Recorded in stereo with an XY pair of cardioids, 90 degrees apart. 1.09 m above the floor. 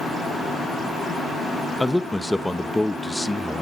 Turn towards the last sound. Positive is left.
turn(degrees=5)